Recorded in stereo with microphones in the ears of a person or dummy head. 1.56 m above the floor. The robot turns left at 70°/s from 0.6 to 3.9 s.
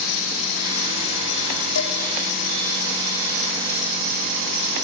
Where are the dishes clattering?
80° left, 3 m.